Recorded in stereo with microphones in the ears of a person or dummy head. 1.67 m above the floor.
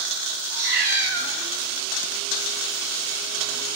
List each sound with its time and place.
0.5 s a cat meowing: 55° right (ahead or behind), 2.0 m